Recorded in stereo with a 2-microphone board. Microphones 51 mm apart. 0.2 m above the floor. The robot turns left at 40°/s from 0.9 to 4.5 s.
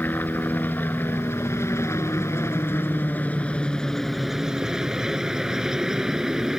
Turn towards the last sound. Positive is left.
turn(degrees=-10)